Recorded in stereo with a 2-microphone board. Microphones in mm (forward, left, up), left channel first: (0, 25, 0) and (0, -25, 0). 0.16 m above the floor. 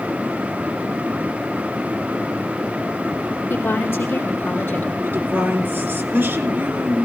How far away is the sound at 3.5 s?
About 3.5 m.